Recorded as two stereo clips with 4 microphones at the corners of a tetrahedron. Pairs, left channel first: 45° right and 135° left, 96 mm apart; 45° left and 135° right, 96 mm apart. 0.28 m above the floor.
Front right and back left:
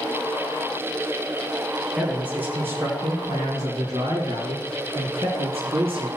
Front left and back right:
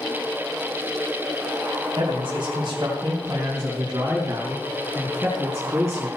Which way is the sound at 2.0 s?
145° right.